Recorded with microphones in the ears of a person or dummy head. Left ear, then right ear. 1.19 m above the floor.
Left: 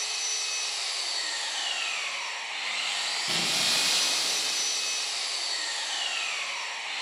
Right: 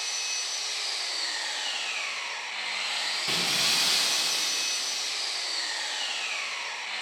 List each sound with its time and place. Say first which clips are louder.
0.0 s an engine running: even; 65° left (ahead or behind), 1.8 m
3.3 s breaking glass: right 1 dB; 25° right (ahead or behind), 0.5 m